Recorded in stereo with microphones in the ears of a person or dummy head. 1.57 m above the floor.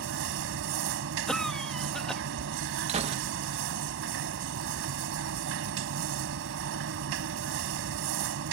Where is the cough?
Centre (ahead or behind).